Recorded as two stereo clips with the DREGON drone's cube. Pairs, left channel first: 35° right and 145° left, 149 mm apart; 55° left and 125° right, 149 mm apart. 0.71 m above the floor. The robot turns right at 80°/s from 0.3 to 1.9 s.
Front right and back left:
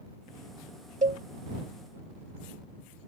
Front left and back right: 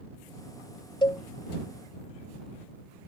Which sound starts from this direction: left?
A cowbell, at 1.0 s.